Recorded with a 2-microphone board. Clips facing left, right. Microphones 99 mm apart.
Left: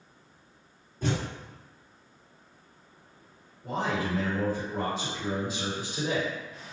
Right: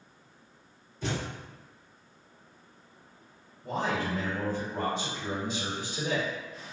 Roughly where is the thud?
Left.